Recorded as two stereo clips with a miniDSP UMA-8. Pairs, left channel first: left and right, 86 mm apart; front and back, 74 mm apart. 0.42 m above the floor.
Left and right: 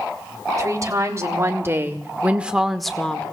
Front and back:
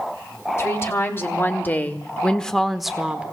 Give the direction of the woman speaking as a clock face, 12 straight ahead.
2 o'clock.